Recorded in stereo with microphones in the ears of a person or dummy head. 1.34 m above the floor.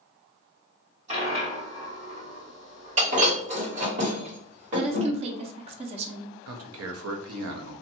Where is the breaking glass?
40° right (ahead or behind), 1.5 m.